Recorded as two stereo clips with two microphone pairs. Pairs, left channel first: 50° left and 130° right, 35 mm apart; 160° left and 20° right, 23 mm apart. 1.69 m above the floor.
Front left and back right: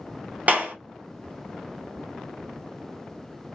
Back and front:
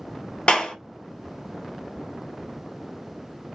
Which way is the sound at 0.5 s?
170° right.